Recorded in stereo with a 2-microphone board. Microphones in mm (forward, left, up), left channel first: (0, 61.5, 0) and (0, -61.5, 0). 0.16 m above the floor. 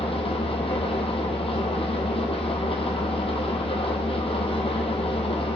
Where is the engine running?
50° left (ahead or behind), 2.5 m.